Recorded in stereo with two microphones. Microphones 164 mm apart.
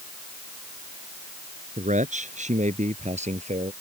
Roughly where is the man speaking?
Right.